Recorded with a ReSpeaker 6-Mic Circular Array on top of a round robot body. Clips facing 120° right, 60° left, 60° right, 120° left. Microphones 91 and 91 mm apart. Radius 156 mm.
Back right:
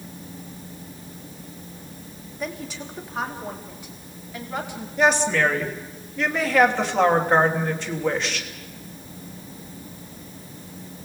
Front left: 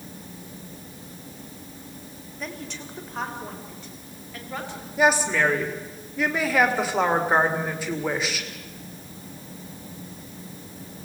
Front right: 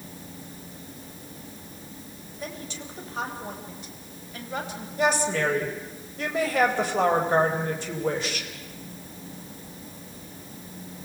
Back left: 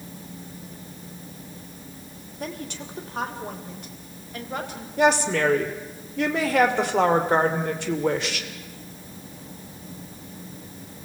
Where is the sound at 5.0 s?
145° left, 3 m.